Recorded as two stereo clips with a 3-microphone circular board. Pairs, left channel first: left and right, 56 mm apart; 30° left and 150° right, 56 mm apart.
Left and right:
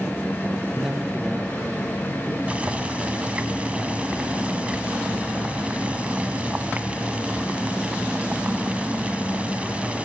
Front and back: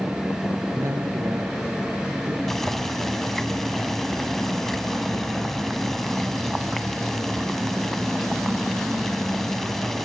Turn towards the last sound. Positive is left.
turn(degrees=-50)